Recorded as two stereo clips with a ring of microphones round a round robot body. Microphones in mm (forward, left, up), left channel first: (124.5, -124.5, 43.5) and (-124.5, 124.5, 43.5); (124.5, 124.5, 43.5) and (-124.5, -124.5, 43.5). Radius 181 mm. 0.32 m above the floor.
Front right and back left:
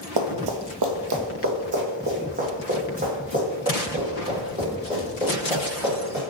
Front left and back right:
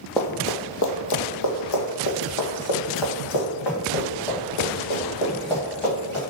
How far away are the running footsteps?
About 0.5 m.